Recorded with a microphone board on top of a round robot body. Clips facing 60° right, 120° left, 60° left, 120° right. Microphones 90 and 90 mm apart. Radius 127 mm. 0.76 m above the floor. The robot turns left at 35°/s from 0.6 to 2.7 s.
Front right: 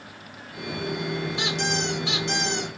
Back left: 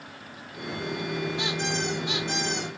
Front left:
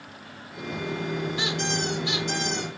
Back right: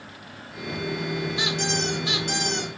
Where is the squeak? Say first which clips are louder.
Front right 2 dB, back right 1 dB; 50° right, 1.5 m; by 2.7 s 95° right, 1.5 m.